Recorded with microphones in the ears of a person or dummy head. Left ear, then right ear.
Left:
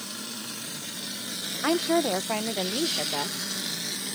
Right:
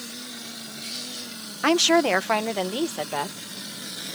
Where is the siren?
I don't hear a siren.